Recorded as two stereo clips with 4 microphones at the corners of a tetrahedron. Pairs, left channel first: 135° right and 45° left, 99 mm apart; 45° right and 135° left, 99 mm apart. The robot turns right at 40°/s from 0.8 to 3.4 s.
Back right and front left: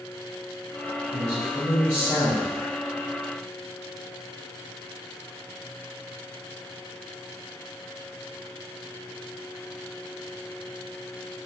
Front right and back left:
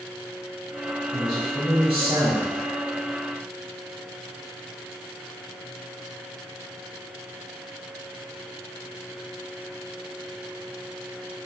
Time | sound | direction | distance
1.1 | a man speaking | 90° left | 1.4 m